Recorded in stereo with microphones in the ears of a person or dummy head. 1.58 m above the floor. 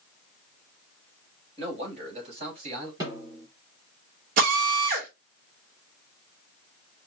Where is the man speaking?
30° right (ahead or behind), 3.5 m.